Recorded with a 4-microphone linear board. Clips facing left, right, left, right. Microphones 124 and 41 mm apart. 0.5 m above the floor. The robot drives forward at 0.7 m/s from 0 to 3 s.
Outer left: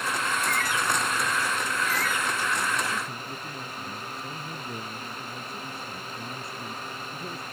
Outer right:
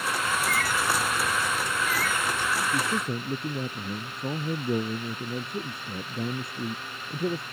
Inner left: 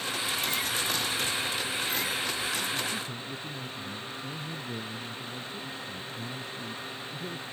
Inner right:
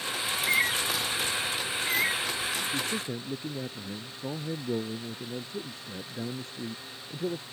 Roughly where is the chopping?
I don't hear chopping.